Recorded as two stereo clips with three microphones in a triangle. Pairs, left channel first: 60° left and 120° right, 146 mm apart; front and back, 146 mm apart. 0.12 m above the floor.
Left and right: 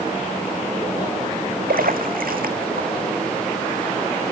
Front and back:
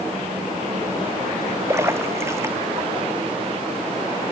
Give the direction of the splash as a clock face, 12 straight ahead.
4 o'clock.